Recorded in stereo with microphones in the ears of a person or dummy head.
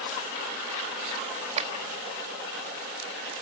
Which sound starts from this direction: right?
A clap, at 1.6 s.